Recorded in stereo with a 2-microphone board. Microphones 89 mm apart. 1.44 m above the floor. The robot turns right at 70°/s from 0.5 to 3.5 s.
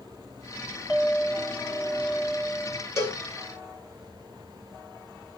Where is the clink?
165° right, 1.1 m; by 2.9 s 25° right, 1.1 m.